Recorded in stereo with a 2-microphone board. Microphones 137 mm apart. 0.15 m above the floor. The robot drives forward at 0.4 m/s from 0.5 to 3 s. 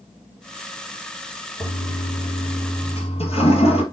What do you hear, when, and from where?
1.6 s a toilet flushing: 40° left (ahead or behind), 3 m; by 3.8 s 45° left (ahead or behind), 2.5 m